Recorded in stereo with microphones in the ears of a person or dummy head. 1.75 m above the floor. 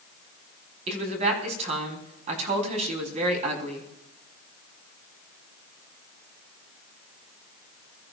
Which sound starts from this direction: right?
A woman speaking, at 0.9 s.